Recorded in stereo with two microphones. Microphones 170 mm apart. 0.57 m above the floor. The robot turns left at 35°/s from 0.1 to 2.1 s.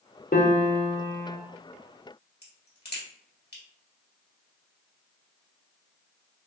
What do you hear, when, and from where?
0.3 s a piano: 60° left, 1.0 m; by 1.4 s 25° left, 1.0 m
2.4 s a crack: 70° left (ahead or behind), 2 m